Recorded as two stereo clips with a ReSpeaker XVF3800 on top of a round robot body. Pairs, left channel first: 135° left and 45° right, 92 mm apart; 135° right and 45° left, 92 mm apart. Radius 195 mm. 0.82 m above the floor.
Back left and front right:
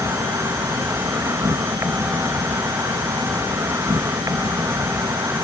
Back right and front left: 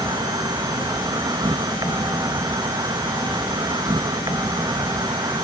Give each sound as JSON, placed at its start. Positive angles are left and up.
{"t": 0.0, "sound": "an insect", "azimuth_deg": 10}